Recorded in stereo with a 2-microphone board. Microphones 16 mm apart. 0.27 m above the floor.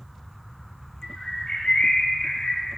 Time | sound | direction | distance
1.0 | a bird | 55° left (ahead or behind) | 0.8 m